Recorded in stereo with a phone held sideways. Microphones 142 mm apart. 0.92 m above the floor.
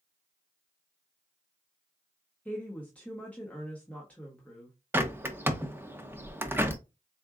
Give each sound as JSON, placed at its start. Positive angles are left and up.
{"t": 2.5, "sound": "a woman speaking", "side_deg": 10, "distance_m": 1.2}
{"t": 4.9, "sound": "a bird", "side_deg": -15, "distance_m": 0.7}